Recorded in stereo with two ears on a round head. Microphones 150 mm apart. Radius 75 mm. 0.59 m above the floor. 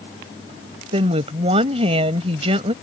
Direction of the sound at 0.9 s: 35° right (ahead or behind).